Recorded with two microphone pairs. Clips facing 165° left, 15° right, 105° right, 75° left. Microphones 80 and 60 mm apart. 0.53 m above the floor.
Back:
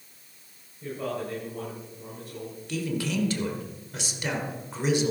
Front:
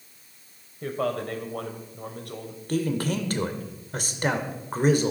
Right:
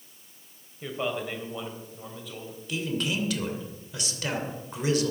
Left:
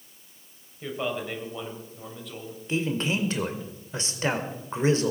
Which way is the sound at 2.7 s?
20° left.